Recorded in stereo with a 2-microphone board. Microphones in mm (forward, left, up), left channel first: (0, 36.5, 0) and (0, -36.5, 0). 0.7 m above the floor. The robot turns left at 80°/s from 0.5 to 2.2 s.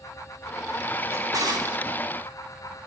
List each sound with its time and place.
1.1 s a drawer: 40° right (ahead or behind), 2.5 m; by 1.9 s 80° right, 2.5 m